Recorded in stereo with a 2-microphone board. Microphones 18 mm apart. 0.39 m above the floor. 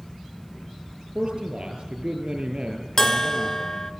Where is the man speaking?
55° right (ahead or behind), 8 m.